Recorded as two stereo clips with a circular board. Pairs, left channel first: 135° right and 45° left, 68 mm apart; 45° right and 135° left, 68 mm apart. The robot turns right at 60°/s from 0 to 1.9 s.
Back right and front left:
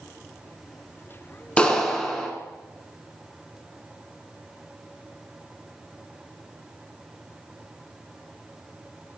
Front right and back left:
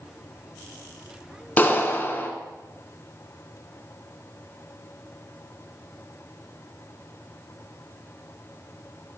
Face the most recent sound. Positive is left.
turn(degrees=-60)